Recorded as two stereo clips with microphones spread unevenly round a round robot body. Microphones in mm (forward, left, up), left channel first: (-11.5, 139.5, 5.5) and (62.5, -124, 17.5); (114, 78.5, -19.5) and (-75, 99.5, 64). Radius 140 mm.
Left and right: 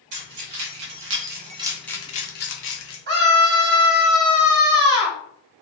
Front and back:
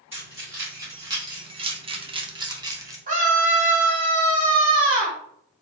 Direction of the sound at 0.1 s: 95° right.